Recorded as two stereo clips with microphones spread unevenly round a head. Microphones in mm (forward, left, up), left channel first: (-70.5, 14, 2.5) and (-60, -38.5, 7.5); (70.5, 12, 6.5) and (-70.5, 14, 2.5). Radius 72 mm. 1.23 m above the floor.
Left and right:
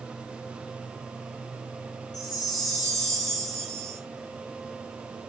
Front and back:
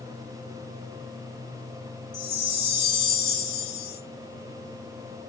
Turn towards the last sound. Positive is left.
turn(degrees=65)